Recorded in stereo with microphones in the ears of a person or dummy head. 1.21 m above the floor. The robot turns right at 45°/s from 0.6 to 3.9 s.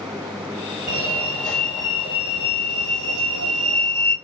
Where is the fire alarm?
145° left, 7.5 m; by 4.2 s 75° right, 7.5 m.